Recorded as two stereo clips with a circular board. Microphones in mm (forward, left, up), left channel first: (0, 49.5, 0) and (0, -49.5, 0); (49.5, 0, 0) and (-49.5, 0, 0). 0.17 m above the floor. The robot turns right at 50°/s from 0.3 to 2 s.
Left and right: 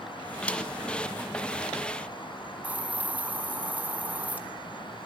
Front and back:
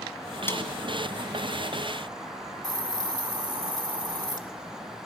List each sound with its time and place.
0.5 s a snare drum: 30° left, 1.5 m; by 0.7 s 40° left, 1.5 m
2.6 s a hiss: 160° right, 1.1 m